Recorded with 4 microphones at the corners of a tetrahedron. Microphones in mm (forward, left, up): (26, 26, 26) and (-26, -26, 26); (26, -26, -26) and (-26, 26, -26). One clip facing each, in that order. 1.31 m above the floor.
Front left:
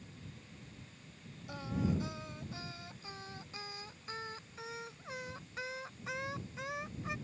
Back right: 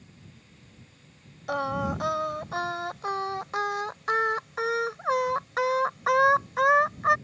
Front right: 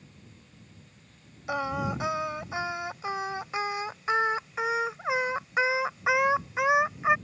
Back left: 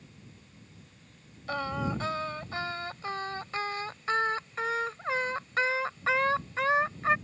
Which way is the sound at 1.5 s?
125° right.